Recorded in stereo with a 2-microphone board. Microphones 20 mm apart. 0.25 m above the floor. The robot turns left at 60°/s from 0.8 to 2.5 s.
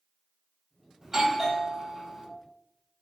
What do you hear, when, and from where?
1.0 s a doorbell: 30° right (ahead or behind), 1.5 m; by 2.3 s centre (ahead or behind), 1.5 m